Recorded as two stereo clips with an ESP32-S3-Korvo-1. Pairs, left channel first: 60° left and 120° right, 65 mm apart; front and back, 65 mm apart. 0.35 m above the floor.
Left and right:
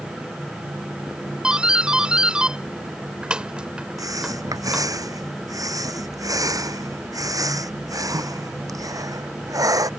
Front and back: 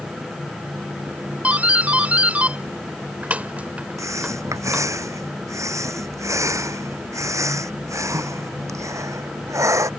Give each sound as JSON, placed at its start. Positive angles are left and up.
{"t": 1.4, "sound": "a doorbell", "azimuth_deg": -165}
{"t": 4.0, "sound": "breathing", "azimuth_deg": -145}